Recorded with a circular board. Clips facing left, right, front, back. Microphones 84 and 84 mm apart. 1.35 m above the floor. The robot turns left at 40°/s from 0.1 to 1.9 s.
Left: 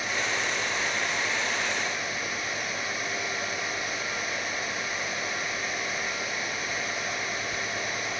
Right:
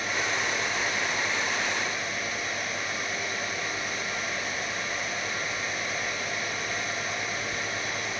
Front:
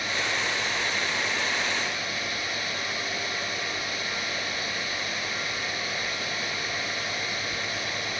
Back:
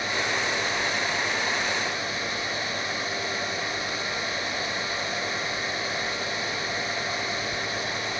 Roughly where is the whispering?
No whispering in this recording.